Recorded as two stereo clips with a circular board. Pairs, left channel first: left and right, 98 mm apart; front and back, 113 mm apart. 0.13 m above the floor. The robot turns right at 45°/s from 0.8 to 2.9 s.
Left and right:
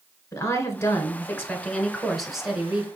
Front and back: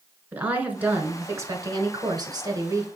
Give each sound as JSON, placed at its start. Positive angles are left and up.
{"t": 0.3, "sound": "a woman speaking", "azimuth_deg": 115, "distance_m": 1.2}